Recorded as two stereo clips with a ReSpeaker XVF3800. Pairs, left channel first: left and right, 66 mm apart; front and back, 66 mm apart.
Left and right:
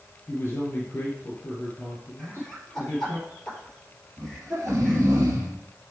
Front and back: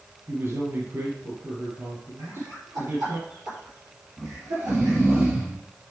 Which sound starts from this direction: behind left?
A man speaking, at 0.3 s.